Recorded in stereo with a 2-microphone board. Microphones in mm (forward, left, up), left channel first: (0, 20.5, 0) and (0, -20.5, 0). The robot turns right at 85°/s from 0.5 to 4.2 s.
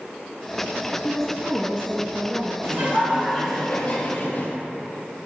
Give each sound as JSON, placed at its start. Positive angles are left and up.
{"t": 1.0, "sound": "a woman speaking", "azimuth_deg": 160, "distance_m": 1.4}
{"t": 2.6, "sound": "laughter", "azimuth_deg": -70, "distance_m": 3.5}